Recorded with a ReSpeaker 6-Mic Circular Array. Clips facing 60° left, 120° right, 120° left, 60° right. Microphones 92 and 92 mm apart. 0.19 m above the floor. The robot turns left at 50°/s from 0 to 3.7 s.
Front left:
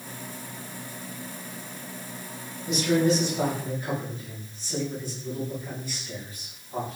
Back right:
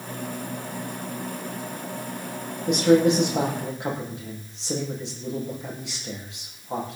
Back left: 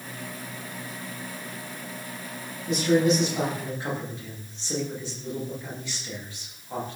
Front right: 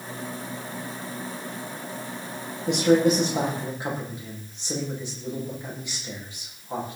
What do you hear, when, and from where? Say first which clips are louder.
2.7 s a man speaking: back right 5 dB, front right 2 dB; 80° right, 9.5 m; by 7.0 s 130° right, 9.5 m